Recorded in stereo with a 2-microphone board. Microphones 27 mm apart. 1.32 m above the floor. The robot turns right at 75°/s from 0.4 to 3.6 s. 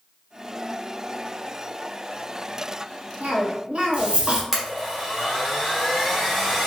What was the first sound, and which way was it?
A cough, 60° right (ahead or behind).